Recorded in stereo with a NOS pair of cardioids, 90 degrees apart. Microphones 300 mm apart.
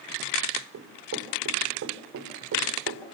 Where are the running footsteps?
60° right, 6.5 m.